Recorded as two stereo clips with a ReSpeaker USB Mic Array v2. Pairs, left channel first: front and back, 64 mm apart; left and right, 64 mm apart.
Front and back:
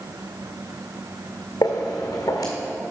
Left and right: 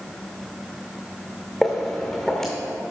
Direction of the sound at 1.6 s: 5° left.